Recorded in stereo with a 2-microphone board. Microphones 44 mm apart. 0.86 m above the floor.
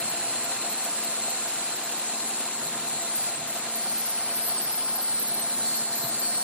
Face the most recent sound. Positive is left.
turn(degrees=25)  # may be behind; listen again after turning